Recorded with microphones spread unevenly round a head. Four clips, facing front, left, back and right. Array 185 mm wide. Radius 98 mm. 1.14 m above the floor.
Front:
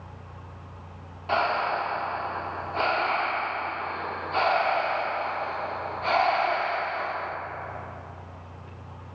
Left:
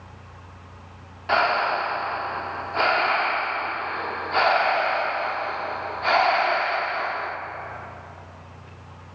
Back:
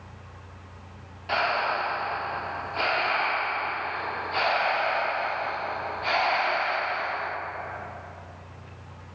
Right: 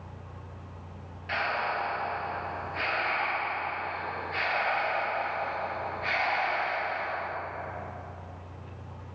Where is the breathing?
90° left, 0.9 m.